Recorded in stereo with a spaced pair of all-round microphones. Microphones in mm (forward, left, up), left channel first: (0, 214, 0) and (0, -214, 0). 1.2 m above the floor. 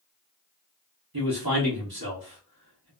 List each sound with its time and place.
1.1 s a man speaking: 55° right (ahead or behind), 1.3 m